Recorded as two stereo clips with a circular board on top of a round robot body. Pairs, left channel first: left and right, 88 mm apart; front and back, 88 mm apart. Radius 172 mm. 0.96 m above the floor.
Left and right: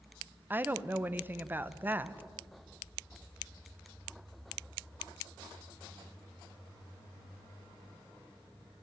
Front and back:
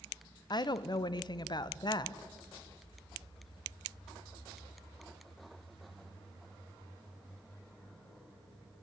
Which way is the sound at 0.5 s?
25° right.